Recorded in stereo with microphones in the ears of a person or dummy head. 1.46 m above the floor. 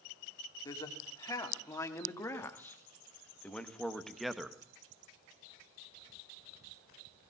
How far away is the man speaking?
About 3.5 m.